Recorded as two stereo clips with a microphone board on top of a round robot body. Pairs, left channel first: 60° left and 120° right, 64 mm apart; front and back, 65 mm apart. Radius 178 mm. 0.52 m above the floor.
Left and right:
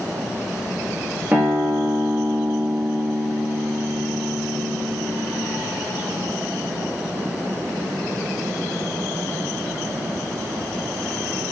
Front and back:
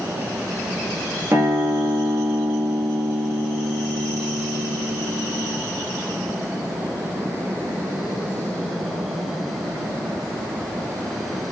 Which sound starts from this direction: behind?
A guitar, at 1.3 s.